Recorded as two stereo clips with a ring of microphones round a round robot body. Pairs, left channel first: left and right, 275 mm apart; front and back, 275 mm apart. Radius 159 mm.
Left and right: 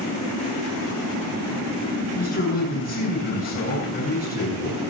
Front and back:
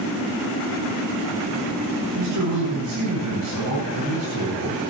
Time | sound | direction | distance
2.1 | a man speaking | 140° left | 9.5 m